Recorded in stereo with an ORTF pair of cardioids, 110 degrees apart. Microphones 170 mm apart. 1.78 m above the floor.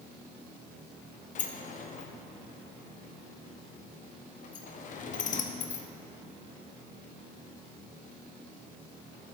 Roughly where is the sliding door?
Ahead left.